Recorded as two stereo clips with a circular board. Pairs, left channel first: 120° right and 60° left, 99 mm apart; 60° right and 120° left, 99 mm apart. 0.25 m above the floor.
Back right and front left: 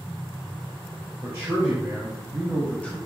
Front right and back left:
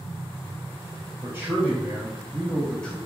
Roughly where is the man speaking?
Left.